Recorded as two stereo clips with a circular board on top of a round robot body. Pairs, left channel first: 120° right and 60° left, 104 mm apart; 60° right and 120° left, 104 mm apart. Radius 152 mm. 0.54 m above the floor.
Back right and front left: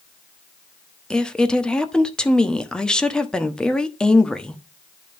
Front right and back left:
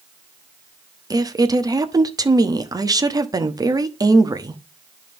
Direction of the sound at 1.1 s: 160° left.